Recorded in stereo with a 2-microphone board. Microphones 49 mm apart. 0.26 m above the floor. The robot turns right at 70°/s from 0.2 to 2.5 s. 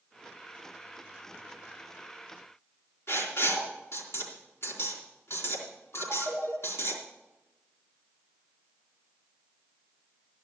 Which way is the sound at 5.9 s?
65° left (ahead or behind).